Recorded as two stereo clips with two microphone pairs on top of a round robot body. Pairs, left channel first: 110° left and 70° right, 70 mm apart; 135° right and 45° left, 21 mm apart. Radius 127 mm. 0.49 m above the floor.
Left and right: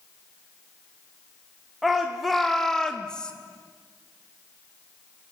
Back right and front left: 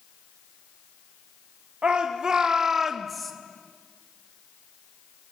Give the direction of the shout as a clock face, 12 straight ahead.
11 o'clock.